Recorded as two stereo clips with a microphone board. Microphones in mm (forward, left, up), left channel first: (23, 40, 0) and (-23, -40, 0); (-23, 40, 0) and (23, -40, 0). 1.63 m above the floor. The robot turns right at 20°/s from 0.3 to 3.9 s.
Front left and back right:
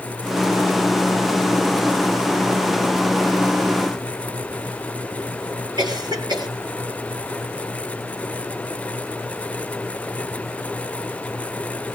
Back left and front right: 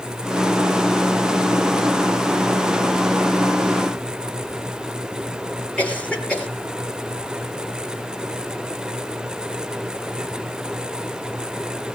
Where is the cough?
160° right, 9 m.